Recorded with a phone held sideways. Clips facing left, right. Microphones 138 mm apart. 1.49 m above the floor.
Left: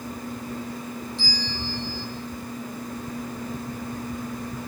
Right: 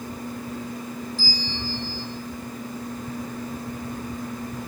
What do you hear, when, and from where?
1.2 s a bell: centre (ahead or behind), 3.5 m